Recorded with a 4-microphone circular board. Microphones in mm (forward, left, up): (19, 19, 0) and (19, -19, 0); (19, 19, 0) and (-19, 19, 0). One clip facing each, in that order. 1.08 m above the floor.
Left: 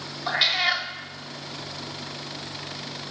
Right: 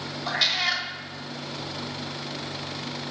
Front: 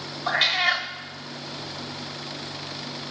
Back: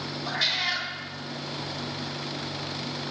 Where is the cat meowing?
25° left, 0.9 m.